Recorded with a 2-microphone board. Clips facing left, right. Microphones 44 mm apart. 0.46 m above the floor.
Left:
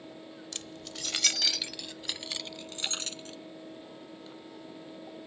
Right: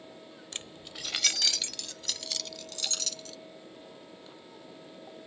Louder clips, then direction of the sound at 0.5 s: Right 1 dB; 35° right (ahead or behind).